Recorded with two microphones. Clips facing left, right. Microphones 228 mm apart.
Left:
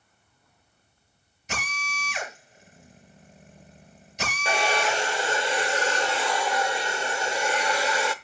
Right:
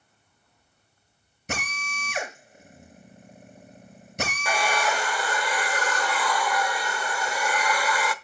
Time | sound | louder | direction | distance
1.5 | a drill | right 3 dB | 55° right (ahead or behind) | 7 m
4.5 | a hair dryer | left 2 dB | 25° left (ahead or behind) | 0.8 m